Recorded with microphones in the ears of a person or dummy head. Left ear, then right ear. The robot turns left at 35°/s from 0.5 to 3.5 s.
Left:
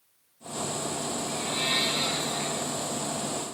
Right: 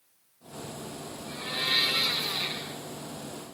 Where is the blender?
20° left, 4 m; by 2.8 s 30° right, 4 m.